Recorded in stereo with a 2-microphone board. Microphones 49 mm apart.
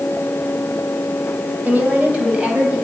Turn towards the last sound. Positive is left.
turn(degrees=-15)  # may be behind; listen again after turning